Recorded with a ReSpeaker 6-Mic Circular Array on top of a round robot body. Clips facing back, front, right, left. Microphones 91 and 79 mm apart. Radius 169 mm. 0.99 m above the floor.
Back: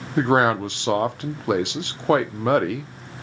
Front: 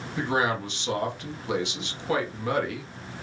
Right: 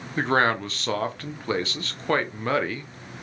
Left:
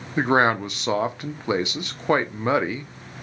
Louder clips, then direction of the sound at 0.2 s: Back 8 dB, left 3 dB; 160° left.